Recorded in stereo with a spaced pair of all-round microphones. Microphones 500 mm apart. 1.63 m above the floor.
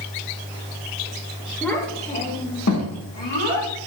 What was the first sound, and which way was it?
A child speaking, 5° left (ahead or behind).